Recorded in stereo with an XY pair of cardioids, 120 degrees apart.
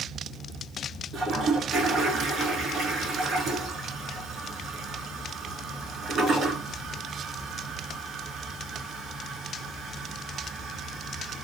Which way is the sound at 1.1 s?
45° right.